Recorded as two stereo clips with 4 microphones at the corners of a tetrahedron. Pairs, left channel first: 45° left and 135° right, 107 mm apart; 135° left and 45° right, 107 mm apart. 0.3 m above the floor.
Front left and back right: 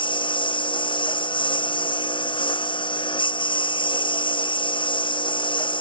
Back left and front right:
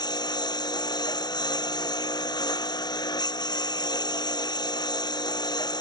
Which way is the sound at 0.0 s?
85° left.